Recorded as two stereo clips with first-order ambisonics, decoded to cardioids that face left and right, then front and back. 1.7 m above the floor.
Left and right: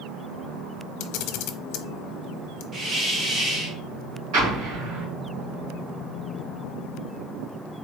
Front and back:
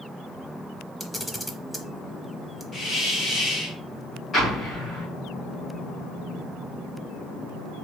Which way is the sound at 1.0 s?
85° left.